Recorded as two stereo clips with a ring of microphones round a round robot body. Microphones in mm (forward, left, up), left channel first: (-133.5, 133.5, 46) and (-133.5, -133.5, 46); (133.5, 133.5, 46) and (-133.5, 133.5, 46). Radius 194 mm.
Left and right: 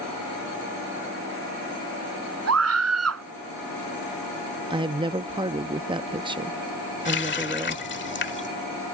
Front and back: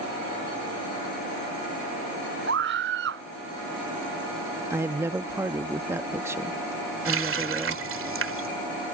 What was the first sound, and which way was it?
A scream, 115° right.